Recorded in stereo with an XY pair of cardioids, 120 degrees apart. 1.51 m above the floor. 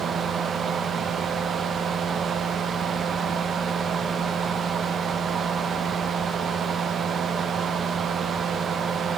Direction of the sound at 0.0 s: 45° right.